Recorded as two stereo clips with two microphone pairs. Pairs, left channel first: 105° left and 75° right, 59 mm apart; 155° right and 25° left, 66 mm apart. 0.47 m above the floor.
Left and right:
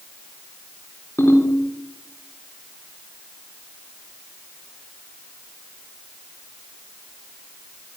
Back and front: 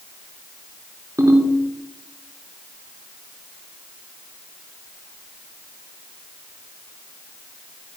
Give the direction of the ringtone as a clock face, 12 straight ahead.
10 o'clock.